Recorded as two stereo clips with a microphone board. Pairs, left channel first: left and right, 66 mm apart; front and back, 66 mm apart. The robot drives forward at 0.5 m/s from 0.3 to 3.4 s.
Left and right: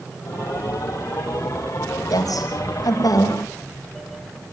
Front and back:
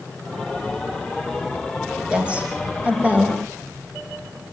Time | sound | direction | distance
2.1 | a woman speaking | 105° left | 5.5 m